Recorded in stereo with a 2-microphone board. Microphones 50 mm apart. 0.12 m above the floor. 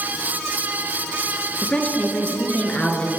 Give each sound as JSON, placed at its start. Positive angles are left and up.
{"t": 1.6, "sound": "a woman speaking", "side_deg": 25, "distance_m": 1.5}